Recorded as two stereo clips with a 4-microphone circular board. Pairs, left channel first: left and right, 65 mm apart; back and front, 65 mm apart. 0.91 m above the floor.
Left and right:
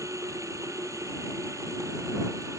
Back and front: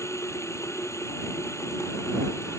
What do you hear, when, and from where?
0.0 s running water: 130° right